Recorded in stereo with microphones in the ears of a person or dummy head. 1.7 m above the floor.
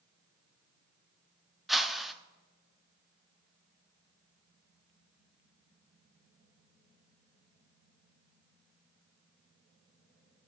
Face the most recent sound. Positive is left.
turn(degrees=5)  # may be behind; listen again after turning